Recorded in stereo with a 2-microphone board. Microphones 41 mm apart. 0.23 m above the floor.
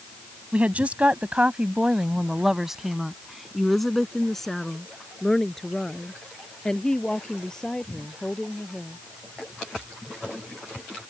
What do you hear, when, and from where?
0.5 s a woman speaking: 35° right (ahead or behind); by 9.0 s 15° left (ahead or behind)